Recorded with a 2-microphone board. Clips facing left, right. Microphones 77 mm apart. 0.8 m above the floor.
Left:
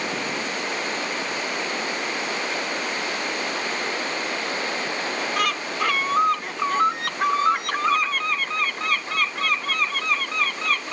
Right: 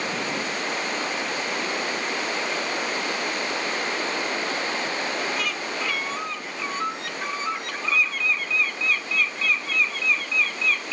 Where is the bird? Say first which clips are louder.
Left 4 dB; 55° left (ahead or behind), 0.7 m.